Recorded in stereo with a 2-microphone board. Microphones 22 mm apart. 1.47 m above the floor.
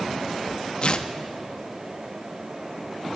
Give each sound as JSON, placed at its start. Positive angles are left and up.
{"t": 0.8, "sound": "tearing paper", "side_deg": 45, "distance_m": 1.2}